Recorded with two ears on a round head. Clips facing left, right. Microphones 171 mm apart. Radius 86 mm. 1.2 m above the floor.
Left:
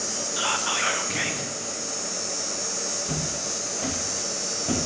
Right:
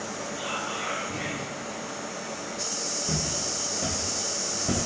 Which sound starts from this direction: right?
Footsteps, at 3.0 s.